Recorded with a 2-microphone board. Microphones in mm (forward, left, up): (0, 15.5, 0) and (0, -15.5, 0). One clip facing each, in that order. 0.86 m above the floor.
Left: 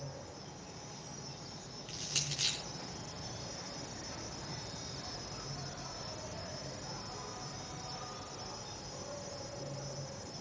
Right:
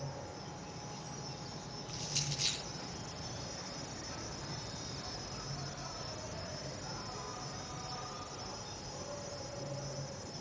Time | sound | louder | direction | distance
0.0 | an insect | right 2 dB | 10° right (ahead or behind) | 4 m
1.9 | crushing | left 1 dB | 65° left (ahead or behind) | 5 m